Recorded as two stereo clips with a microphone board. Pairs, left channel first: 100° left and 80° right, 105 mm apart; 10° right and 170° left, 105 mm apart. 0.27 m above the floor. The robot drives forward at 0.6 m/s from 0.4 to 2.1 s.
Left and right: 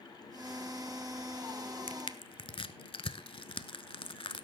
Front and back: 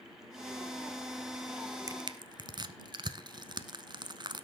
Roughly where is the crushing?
Behind left.